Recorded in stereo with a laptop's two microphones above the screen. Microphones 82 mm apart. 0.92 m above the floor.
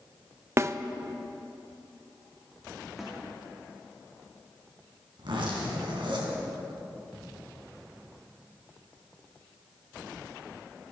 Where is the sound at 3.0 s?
5° right (ahead or behind), 2.5 m.